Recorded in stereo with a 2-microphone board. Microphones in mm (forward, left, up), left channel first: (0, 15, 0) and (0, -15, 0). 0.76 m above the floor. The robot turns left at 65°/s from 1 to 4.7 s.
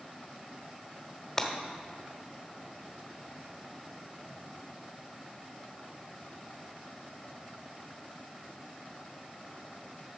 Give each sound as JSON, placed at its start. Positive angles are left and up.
{"t": 1.4, "sound": "breaking glass", "side_deg": 20, "distance_m": 1.1}